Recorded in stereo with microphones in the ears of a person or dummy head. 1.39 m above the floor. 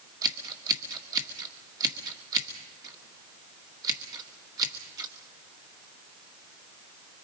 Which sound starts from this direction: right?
Scissors, at 0.2 s.